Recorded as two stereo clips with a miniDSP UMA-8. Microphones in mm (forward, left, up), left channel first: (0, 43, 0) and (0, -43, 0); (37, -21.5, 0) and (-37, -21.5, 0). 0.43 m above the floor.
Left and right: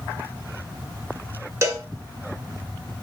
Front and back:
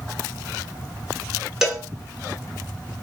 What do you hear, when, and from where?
1.6 s a cowbell: 100° right, 0.8 m